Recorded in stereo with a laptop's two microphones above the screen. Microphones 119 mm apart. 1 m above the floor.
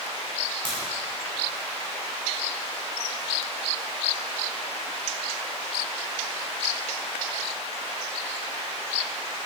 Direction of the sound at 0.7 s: 40° right (ahead or behind).